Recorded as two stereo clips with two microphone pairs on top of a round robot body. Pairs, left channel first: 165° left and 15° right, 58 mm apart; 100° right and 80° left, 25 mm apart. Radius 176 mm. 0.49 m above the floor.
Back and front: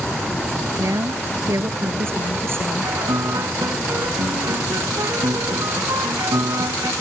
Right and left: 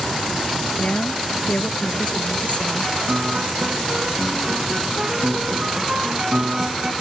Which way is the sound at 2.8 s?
20° left.